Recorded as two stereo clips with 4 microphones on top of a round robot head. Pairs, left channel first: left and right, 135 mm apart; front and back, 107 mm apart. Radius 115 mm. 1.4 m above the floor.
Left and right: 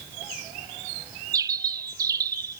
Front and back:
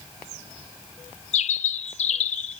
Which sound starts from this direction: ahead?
A bird, at 1.3 s.